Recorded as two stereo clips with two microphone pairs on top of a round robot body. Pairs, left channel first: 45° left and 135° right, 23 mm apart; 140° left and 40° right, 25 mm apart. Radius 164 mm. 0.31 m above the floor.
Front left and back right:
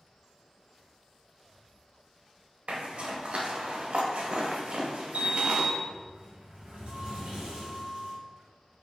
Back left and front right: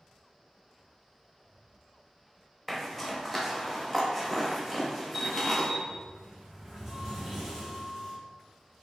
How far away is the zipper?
About 0.9 m.